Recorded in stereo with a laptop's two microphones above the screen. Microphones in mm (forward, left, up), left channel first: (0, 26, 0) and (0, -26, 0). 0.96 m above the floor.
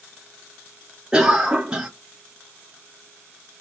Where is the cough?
20° right (ahead or behind), 0.7 m.